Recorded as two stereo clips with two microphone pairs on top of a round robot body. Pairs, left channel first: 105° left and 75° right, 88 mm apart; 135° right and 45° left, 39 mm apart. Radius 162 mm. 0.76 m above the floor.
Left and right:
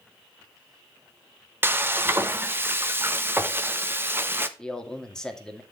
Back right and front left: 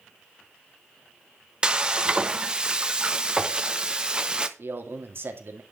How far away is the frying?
About 1.4 m.